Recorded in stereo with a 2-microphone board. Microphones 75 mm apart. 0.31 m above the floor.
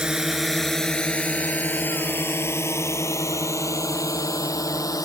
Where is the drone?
10° right (ahead or behind); by 5.0 s 50° left (ahead or behind).